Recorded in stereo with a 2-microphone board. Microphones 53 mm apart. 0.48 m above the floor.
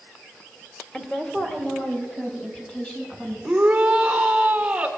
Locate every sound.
0.9 s a woman speaking: 10° left (ahead or behind), 1.2 m; by 3.3 s 15° left (ahead or behind), 4.5 m
3.4 s a shout: 20° right (ahead or behind), 1.8 m